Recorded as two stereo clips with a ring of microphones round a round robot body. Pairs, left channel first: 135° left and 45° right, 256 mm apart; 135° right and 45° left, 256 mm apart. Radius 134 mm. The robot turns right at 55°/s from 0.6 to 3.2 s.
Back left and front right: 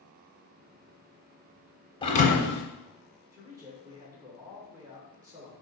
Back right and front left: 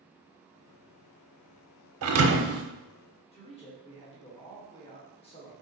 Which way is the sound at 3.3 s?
105° right.